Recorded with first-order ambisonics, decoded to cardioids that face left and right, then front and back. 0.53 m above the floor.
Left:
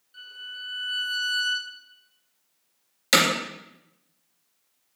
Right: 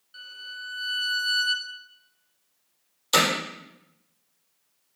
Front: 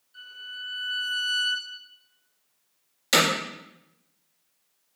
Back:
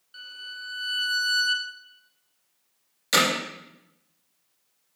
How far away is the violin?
About 1.5 m.